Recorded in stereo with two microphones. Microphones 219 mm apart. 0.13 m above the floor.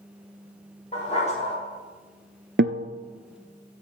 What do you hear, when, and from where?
0.9 s a dog barking: 30° left (ahead or behind), 6 m
2.6 s a guitar: 55° right (ahead or behind), 0.7 m